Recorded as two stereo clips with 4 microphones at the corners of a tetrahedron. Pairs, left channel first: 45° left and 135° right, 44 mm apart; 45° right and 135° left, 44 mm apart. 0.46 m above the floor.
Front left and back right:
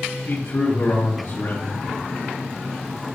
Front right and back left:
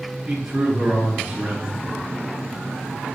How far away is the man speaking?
About 4 m.